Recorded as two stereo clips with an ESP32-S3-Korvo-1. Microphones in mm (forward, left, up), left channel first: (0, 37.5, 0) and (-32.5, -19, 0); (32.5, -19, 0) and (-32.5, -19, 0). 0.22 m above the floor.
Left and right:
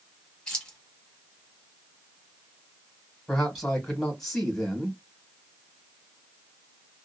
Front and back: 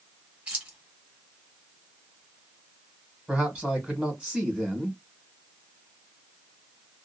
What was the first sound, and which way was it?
Keys jangling, 125° left.